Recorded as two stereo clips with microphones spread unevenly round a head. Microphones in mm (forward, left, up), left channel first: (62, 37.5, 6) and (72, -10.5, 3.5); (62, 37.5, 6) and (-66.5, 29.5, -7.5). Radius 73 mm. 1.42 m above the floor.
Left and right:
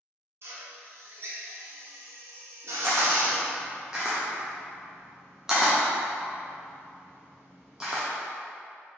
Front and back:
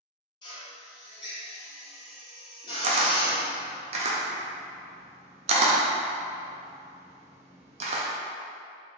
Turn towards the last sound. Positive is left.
turn(degrees=-155)